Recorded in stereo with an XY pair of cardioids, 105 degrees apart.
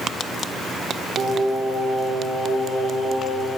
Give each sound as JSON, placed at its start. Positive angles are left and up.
{"t": 1.2, "sound": "singing", "azimuth_deg": -55, "distance_m": 5.0}